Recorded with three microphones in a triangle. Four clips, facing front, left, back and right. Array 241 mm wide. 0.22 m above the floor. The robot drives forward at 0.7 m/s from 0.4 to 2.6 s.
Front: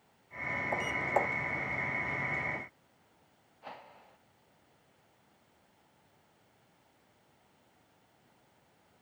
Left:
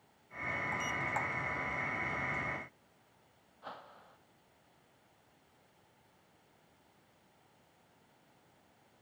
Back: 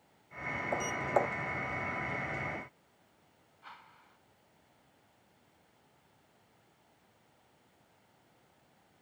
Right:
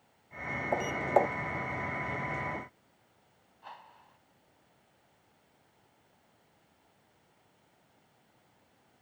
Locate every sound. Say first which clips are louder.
0.7 s a sliding door: right 13 dB, back 1 dB; 95° right
3.6 s a whoosh: left 1 dB, front 5 dB; 40° left